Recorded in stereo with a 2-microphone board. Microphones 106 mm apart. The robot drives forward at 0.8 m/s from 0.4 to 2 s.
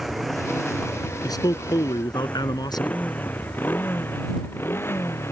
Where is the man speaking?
35° left (ahead or behind); by 3.0 s 40° left (ahead or behind).